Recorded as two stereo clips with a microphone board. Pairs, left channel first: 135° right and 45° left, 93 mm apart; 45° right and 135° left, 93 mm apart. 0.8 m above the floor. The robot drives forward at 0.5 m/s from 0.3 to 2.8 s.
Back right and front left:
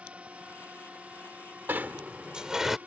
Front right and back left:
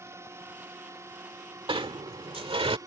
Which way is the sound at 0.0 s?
110° left.